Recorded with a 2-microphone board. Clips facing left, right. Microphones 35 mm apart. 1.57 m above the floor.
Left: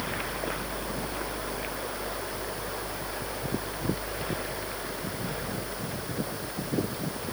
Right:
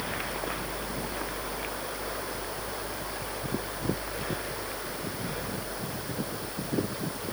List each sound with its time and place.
Only background noise.